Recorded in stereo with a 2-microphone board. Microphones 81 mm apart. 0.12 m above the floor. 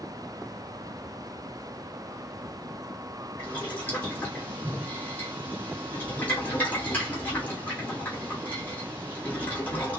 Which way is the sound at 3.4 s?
20° left (ahead or behind).